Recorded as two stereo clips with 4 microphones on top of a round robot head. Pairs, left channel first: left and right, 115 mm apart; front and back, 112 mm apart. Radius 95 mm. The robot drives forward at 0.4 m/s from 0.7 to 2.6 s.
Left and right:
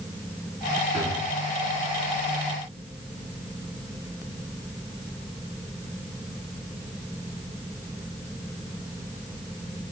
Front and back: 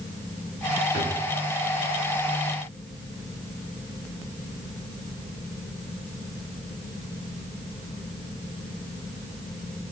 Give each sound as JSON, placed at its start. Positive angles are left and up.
{"t": 0.9, "sound": "a drawer", "azimuth_deg": 0, "distance_m": 2.5}